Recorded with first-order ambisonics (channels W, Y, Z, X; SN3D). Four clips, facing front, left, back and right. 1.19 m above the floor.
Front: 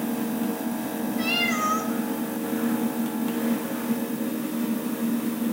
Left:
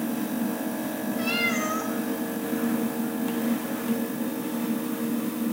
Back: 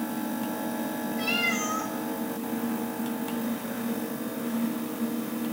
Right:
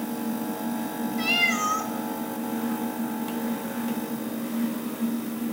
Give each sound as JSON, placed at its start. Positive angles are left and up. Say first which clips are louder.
{"t": 1.2, "sound": "a cat meowing", "louder": "right 3 dB, front 3 dB", "azimuth_deg": -80, "distance_m": 2.0}